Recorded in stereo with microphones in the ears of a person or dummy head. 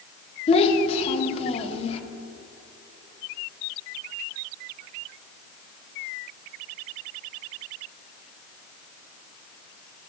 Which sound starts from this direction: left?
A child speaking, at 0.5 s.